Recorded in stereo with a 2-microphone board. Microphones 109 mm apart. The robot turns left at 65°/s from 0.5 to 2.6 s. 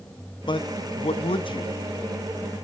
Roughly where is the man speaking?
Behind left.